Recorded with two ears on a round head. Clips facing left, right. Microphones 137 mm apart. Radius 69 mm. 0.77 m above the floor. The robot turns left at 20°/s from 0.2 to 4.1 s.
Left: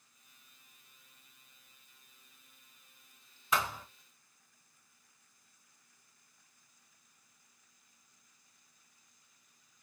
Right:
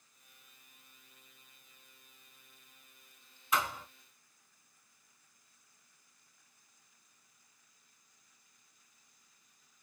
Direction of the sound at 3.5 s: 65° left (ahead or behind).